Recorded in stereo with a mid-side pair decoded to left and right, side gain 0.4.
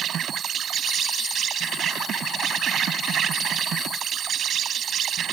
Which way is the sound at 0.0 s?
65° right.